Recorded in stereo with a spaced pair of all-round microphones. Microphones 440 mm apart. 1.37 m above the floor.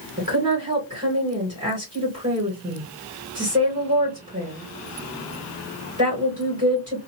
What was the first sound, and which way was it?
A woman speaking, 15° right (ahead or behind).